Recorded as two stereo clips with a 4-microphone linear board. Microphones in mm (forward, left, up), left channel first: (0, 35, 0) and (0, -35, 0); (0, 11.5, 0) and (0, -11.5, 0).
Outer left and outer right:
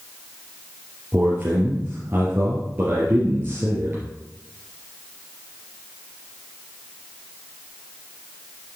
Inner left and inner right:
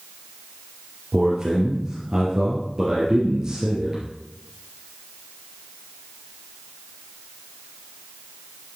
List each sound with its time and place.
1.1 s a man speaking: 25° right (ahead or behind), 2.5 m